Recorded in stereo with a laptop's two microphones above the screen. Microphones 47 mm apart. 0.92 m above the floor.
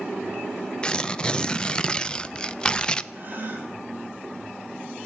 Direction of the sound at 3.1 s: 40° right (ahead or behind).